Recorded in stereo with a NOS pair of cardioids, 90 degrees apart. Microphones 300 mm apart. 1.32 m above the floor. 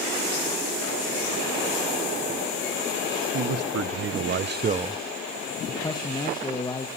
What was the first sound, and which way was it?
A man speaking, 60° right.